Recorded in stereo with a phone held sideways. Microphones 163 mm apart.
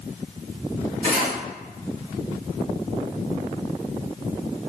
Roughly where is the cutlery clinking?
Right.